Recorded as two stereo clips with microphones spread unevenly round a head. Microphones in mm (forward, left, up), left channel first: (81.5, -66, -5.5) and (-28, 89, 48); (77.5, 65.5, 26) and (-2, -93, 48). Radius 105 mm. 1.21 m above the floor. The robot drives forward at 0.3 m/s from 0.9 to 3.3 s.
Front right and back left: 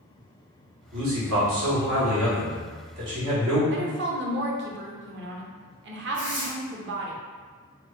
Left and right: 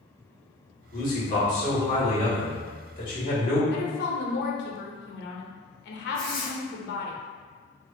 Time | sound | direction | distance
0.9 | a man speaking | 105° left | 1.5 m
3.7 | a woman speaking | 95° left | 0.7 m
6.1 | tearing paper | 155° left | 0.9 m